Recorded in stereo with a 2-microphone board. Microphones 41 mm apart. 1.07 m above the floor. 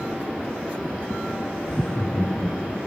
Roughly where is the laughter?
Centre.